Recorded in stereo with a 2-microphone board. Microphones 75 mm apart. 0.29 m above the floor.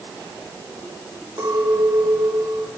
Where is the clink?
65° right (ahead or behind), 7.5 m.